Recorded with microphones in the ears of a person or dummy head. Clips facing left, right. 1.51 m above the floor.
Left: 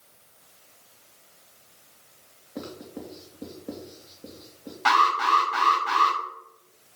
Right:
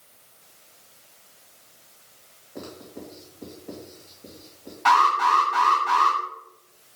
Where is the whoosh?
No whoosh in this recording.